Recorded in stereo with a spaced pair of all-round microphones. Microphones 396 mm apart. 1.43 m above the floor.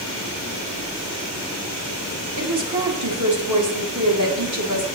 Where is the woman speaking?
50° right (ahead or behind), 1.6 m.